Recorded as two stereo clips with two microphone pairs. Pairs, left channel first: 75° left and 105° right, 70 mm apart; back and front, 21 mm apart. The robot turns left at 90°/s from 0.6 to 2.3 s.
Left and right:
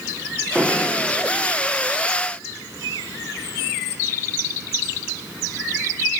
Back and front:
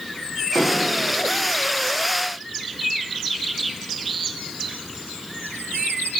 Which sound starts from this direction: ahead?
Dishes clattering, at 0.6 s.